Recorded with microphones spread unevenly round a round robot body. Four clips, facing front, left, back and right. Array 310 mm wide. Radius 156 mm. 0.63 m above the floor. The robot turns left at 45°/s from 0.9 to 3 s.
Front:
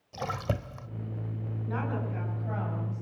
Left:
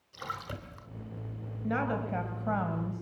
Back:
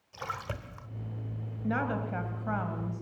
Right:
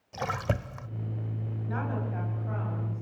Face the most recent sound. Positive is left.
turn(degrees=85)